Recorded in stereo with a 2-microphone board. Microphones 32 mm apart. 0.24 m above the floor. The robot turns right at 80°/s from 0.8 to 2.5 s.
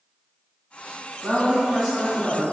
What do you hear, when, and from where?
1.2 s a woman speaking: 55° right, 1.6 m; by 2.4 s 40° left, 1.6 m